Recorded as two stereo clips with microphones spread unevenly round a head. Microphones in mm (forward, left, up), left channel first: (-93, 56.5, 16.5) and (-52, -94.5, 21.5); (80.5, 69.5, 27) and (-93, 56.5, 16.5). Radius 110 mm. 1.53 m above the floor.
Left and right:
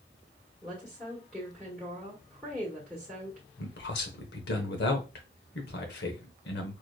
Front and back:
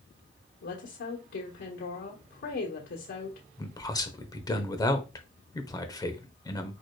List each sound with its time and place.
0.6 s a woman speaking: 20° left, 1.3 m
3.6 s a man speaking: 75° left, 0.9 m